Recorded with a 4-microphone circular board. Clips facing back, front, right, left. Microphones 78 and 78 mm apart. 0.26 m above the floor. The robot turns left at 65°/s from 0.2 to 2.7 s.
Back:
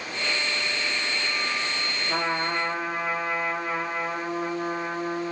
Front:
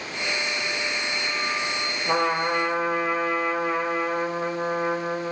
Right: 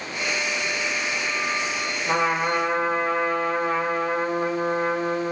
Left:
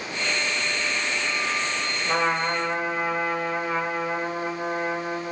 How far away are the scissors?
I don't hear scissors.